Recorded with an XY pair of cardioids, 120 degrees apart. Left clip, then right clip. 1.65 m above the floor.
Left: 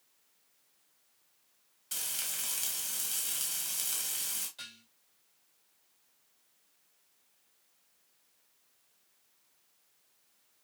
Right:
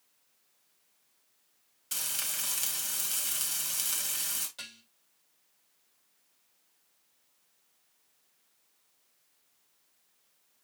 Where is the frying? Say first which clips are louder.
Right 3 dB; 25° right, 1.9 m.